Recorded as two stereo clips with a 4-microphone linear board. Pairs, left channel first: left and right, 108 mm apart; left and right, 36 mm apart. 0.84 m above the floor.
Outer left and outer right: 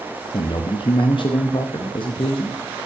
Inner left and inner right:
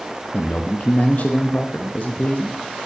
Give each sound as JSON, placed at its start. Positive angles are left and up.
{"t": 0.3, "sound": "a man speaking", "side_deg": 55, "distance_m": 0.6}